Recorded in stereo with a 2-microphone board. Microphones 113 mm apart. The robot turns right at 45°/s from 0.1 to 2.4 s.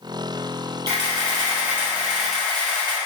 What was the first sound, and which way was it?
A camera shutter, 60° right.